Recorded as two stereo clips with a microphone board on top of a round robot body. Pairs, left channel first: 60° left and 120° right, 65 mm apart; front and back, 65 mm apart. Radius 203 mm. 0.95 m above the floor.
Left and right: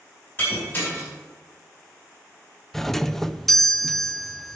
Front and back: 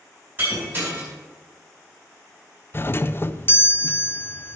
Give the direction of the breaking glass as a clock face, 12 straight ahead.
8 o'clock.